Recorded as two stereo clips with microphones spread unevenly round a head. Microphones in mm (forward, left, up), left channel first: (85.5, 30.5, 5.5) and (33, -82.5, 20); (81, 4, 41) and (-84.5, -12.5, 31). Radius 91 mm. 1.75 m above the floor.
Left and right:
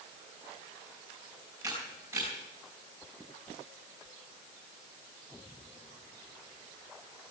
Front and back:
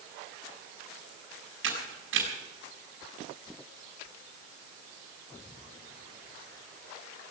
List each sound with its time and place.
1.6 s a camera shutter: 170° left, 5 m